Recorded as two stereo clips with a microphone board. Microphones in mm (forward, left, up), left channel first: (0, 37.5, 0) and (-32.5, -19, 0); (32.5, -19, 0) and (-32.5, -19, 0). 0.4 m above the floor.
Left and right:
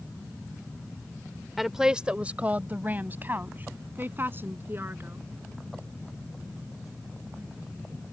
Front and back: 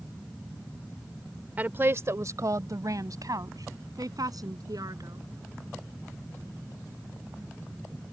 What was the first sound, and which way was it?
A woman speaking, 155° left.